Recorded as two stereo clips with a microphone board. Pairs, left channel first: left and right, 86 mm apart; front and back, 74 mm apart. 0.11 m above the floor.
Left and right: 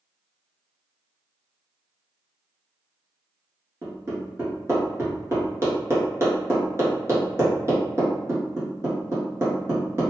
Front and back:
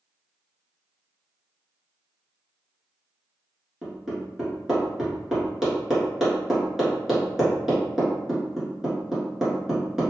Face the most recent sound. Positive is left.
turn(degrees=-100)